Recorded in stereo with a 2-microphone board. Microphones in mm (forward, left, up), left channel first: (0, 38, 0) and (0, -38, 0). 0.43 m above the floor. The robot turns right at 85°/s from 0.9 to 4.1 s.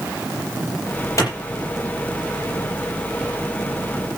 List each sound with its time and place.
1.2 s a clap: 40° left (ahead or behind), 9 m; by 1.3 s 50° left (ahead or behind), 9 m